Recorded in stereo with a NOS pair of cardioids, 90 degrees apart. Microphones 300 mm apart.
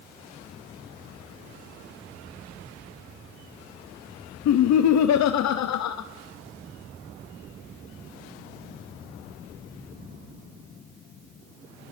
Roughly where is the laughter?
Ahead left.